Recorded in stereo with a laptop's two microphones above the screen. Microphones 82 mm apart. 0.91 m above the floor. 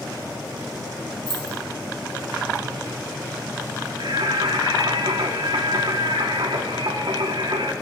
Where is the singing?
75° right (ahead or behind), 1.0 m.